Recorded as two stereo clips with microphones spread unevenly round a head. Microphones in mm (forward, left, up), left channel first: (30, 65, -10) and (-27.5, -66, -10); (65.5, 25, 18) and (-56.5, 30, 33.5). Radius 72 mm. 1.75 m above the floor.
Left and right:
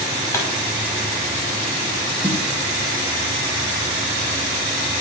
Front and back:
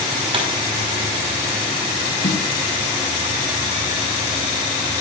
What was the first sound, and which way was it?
A pop, 135° left.